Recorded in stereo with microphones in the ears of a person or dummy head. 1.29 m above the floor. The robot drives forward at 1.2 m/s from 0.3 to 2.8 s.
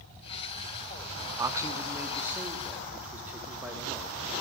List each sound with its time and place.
1.4 s a man speaking: 15° right (ahead or behind), 0.9 m; by 4.3 s 5° right (ahead or behind), 2.5 m